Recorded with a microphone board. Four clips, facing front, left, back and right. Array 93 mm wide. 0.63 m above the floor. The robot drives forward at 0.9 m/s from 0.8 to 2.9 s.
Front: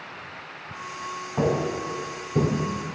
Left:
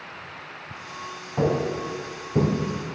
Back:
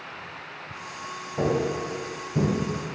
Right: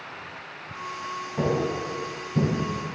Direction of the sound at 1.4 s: 35° left.